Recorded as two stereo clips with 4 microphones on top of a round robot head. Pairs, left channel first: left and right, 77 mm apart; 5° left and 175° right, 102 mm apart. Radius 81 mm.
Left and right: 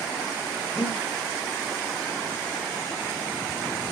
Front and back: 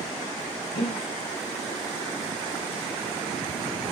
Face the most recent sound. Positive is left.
turn(degrees=25)